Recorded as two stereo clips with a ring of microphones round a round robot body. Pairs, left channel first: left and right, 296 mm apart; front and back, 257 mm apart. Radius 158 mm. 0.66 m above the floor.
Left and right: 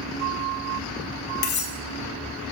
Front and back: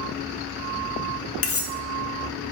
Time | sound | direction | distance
1.4 | cutlery clinking | 35° left | 0.9 m